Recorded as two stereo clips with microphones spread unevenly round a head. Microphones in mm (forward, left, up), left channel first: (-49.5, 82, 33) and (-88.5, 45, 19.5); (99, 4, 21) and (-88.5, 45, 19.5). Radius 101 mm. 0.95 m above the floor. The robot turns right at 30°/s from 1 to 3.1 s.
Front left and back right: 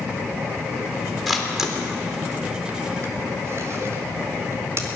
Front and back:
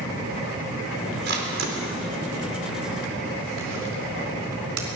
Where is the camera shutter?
135° left, 4 m; by 5.0 s 170° right, 4 m.